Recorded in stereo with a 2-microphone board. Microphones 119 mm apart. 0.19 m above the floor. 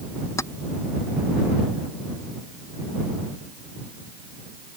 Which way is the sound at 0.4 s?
25° left (ahead or behind).